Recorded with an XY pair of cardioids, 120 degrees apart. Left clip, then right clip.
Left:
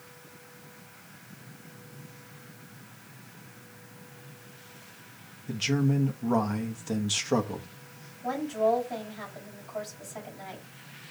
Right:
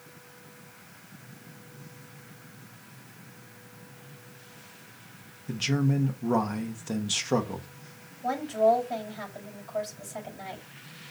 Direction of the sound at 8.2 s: 30° right.